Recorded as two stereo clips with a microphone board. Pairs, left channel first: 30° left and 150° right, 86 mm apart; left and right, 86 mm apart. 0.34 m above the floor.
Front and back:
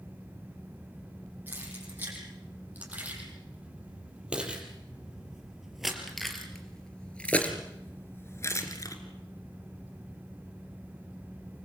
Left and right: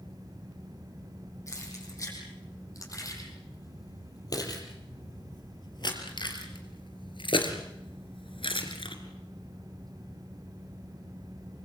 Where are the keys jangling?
145° left, 8 m; by 9.0 s 80° left, 3 m.